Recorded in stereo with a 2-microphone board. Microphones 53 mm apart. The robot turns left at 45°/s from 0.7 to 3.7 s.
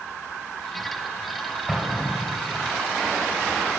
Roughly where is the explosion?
Behind.